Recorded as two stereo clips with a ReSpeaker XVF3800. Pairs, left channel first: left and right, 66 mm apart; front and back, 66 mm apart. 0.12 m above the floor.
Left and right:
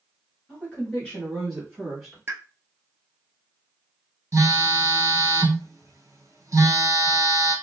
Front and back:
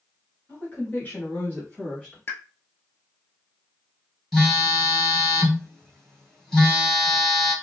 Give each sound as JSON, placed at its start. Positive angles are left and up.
{"t": 0.5, "sound": "a woman speaking", "azimuth_deg": 40, "distance_m": 1.9}
{"t": 2.3, "sound": "a pop", "azimuth_deg": -50, "distance_m": 0.7}
{"t": 4.3, "sound": "a phone buzzing", "azimuth_deg": -85, "distance_m": 1.2}